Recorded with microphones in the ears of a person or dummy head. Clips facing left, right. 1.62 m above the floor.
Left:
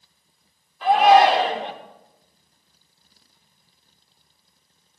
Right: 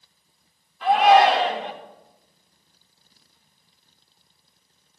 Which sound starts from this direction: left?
A shout, at 0.8 s.